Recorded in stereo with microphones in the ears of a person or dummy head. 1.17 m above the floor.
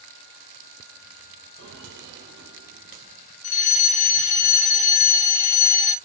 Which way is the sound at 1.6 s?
60° right (ahead or behind).